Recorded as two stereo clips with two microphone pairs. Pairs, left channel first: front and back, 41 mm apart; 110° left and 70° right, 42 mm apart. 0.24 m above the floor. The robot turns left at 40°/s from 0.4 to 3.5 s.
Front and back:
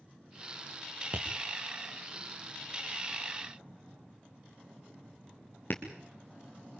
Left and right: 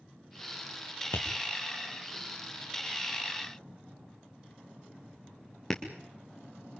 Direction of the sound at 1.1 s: 130° left.